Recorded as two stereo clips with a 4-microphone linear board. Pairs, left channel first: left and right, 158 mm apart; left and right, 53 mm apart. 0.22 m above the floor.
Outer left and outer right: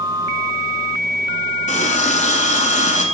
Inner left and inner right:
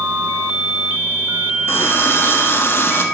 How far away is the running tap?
About 1.5 m.